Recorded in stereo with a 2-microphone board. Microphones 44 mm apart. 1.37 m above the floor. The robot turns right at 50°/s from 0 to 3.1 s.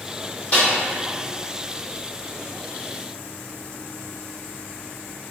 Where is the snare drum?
40° left (ahead or behind), 1.7 m; by 0.7 s 35° left (ahead or behind), 1.7 m.